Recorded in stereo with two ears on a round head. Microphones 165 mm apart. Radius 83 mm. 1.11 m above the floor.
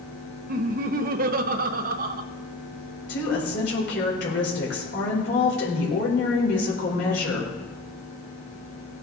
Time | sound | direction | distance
0.5 | laughter | 50° right (ahead or behind) | 0.9 m
3.1 | a woman speaking | 65° left (ahead or behind) | 4 m